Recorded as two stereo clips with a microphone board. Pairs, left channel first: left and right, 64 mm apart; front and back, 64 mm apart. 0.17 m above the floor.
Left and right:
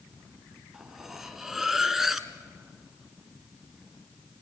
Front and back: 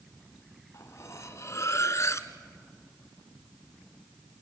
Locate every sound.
0.7 s cutlery clinking: 5° right, 1.3 m